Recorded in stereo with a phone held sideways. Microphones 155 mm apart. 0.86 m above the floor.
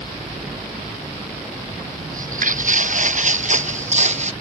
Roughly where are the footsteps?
Right.